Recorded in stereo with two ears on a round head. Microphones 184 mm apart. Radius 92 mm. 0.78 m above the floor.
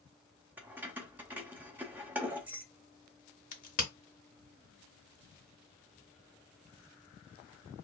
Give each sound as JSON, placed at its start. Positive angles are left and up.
{"t": 0.6, "sound": "keys jangling", "side_deg": -10, "distance_m": 0.5}
{"t": 3.5, "sound": "a crack", "side_deg": 40, "distance_m": 0.8}